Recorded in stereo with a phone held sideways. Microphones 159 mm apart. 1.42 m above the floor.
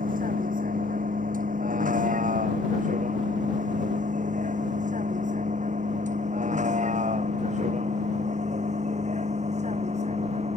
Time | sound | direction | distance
0.0 | a vehicle | 55° right (ahead or behind) | ?